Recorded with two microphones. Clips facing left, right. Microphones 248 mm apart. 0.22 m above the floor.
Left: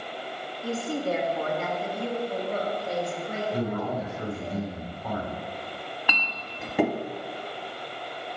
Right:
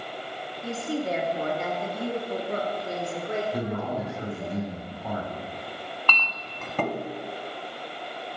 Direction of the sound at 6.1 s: 10° left (ahead or behind).